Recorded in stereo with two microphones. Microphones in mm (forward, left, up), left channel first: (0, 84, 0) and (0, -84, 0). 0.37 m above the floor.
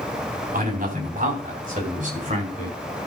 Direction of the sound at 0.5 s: 60° right (ahead or behind).